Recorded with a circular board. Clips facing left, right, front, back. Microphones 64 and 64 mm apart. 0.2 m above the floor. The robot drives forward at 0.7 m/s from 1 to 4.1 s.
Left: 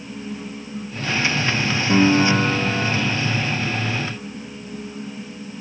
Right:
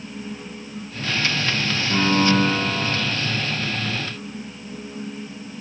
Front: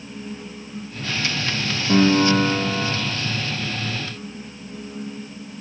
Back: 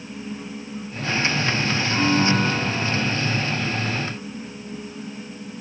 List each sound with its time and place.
1.9 s a piano: 35° left, 1.1 m; by 2.9 s 75° left, 0.7 m